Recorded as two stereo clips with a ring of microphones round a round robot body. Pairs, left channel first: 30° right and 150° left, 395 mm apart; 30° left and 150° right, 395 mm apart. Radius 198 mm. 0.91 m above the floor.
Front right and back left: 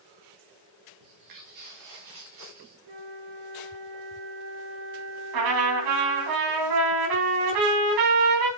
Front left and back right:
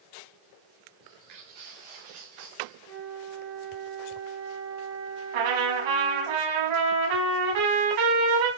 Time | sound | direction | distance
1.0 | footsteps | 170° right | 4 m
2.9 | a flute | 175° right | 4.5 m
5.3 | a trumpet | 175° right | 4.5 m